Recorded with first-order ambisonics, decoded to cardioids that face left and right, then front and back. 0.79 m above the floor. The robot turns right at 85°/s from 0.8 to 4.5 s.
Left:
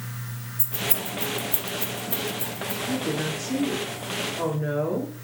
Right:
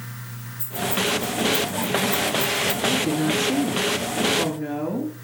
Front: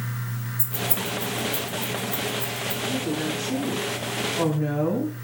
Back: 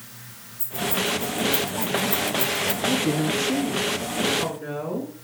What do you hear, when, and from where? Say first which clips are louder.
0.6 s keys jangling: right 6 dB, back 4 dB; 45° left, 2.5 m; by 2.8 s 150° right, 2.5 m
2.9 s a woman speaking: right 6 dB, back 4 dB; 165° right, 4.5 m; by 5.2 s 25° right, 4.5 m